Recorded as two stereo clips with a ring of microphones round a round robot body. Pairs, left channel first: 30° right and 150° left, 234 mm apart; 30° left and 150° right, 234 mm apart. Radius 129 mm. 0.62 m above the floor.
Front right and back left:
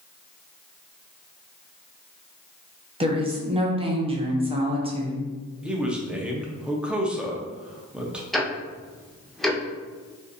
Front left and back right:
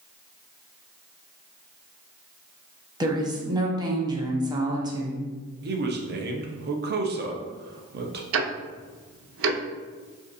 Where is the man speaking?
125° right, 0.8 m.